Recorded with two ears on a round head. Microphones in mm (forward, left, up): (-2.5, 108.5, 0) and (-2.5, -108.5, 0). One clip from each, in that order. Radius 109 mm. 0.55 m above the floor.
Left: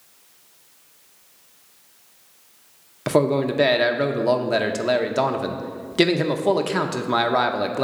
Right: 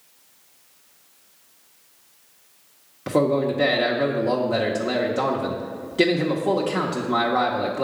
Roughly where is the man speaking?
Left.